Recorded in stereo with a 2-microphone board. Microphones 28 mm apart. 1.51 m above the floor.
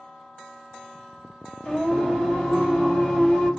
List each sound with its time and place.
1.6 s singing: 55° left (ahead or behind), 1.8 m